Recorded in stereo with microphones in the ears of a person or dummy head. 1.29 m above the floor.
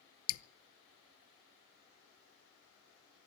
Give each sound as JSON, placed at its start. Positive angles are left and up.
{"t": 0.3, "sound": "dripping", "side_deg": 85, "distance_m": 0.6}